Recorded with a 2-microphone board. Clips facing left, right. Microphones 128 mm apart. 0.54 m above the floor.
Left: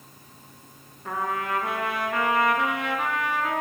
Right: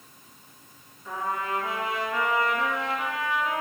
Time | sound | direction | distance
1.1 | a trumpet | 65° left (ahead or behind) | 2 m